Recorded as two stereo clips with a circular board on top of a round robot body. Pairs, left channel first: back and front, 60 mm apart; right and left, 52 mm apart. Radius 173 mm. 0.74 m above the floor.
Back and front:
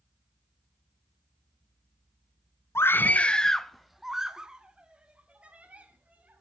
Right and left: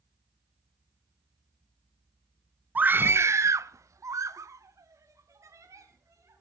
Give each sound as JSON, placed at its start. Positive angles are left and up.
{"t": 2.8, "sound": "a scream", "azimuth_deg": 145, "distance_m": 0.9}